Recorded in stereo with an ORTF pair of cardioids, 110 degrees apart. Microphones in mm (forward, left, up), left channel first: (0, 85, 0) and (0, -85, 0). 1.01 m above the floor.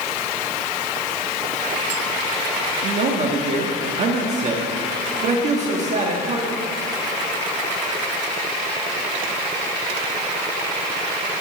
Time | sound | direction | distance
2.8 | a man speaking | 45° right | 1.6 m